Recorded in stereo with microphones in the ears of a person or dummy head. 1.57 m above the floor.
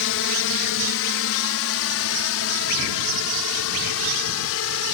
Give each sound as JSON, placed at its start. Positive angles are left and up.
{"t": 0.0, "sound": "a drone", "side_deg": 65}